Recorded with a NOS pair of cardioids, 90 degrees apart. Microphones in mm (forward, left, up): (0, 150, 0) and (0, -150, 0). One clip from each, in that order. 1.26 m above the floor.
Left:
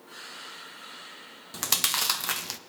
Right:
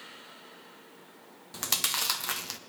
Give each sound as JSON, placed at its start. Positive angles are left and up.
{"t": 1.5, "sound": "chewing", "azimuth_deg": 10, "distance_m": 0.6}